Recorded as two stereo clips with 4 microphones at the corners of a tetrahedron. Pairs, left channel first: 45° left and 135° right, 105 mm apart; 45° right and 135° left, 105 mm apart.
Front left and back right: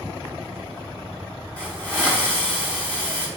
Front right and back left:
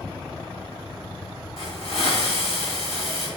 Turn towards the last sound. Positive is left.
turn(degrees=-30)